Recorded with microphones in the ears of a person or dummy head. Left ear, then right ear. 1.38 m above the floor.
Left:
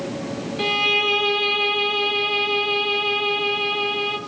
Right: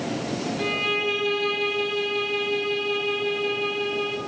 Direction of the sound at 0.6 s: 25° left (ahead or behind).